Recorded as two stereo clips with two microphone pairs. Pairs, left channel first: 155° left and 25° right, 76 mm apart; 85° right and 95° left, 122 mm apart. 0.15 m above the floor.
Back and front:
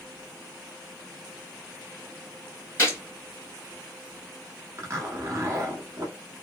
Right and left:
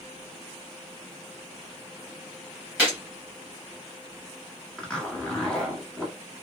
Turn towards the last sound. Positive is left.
turn(degrees=-5)